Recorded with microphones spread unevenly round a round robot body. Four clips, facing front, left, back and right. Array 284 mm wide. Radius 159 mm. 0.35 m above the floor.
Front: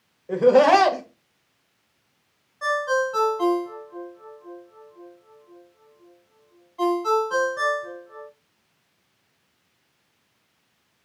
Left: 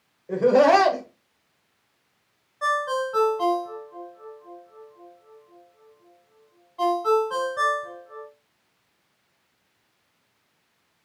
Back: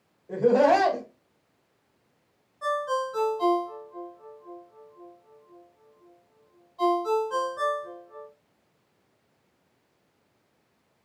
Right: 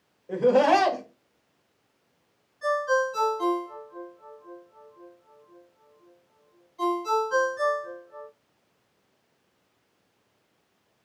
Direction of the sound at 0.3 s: 25° left.